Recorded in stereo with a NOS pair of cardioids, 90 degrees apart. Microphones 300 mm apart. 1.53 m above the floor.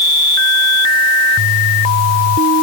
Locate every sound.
Only background noise.